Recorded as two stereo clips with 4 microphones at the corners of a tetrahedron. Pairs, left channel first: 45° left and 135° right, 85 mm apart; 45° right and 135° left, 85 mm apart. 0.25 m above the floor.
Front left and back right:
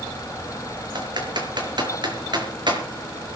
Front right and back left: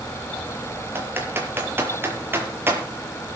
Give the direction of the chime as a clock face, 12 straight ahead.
I don't hear a chime.